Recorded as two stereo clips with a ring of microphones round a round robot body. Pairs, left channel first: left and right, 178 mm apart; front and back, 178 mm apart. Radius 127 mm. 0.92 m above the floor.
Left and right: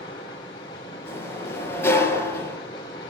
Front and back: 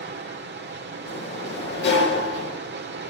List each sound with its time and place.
0.0 s running water: 160° left, 2 m
1.1 s a sliding door: 15° left, 5 m